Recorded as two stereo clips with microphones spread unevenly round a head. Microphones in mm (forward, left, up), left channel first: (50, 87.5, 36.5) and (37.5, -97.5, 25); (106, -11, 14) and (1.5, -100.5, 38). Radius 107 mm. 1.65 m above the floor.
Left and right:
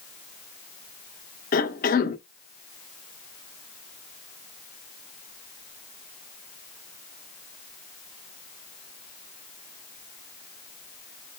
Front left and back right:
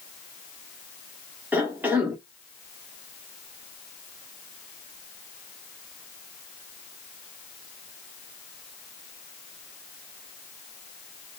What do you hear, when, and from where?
1.5 s a cough: 140° left, 0.9 m